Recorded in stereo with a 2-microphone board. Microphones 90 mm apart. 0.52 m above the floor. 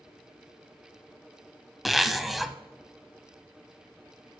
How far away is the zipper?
About 0.6 m.